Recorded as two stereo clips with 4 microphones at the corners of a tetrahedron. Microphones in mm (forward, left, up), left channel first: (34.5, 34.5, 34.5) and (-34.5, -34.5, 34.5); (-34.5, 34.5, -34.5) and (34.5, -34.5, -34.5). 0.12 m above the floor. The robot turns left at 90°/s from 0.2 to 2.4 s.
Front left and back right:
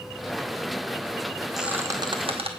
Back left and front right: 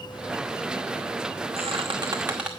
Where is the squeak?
45° right, 0.9 m; by 2.5 s 125° right, 0.9 m.